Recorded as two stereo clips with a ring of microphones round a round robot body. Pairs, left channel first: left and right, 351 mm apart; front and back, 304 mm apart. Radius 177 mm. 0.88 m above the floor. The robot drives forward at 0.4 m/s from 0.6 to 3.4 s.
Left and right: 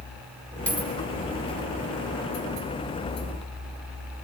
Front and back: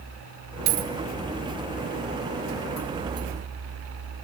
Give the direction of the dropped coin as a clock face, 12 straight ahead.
6 o'clock.